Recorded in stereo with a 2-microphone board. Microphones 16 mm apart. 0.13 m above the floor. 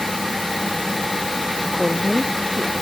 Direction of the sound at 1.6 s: 70° right (ahead or behind).